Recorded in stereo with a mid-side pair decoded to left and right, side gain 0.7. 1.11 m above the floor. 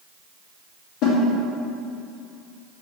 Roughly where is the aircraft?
I don't hear an aircraft.